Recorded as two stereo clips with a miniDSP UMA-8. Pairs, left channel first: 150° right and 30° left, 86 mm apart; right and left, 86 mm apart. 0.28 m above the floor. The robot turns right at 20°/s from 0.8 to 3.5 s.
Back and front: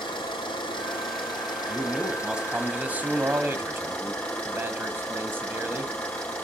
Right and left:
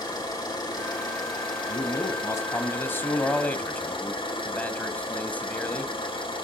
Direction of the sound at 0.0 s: 130° right.